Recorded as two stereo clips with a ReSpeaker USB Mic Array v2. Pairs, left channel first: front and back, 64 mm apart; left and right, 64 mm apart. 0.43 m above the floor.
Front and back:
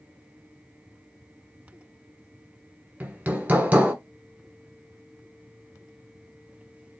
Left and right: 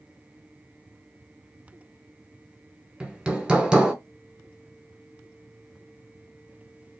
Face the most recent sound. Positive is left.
turn(degrees=-150)